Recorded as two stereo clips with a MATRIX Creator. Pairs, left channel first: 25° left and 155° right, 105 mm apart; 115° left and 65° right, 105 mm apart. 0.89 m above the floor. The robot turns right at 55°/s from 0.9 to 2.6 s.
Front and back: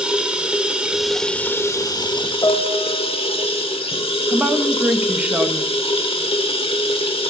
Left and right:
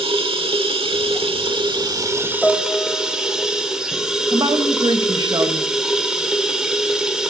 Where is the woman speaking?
90° right, 0.9 m.